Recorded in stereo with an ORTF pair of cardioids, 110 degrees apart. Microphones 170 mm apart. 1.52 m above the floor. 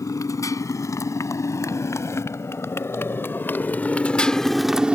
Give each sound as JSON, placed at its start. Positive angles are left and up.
{"t": 0.0, "sound": "a motorcycle", "azimuth_deg": 20}